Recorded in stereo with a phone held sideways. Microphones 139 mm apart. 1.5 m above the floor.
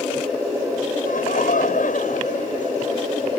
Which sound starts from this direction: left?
Laughter, at 1.1 s.